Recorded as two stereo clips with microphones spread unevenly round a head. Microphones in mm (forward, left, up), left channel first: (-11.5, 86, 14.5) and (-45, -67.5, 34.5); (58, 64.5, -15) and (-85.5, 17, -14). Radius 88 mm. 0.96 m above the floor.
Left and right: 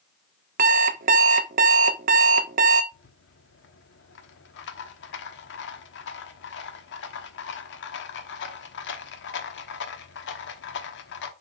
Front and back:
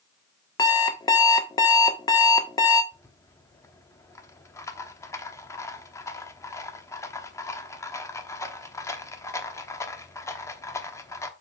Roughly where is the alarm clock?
Ahead right.